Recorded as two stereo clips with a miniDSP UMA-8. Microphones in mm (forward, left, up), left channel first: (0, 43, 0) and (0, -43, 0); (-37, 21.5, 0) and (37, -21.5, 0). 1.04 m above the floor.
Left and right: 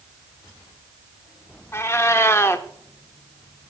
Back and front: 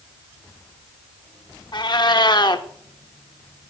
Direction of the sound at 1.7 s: 145° left.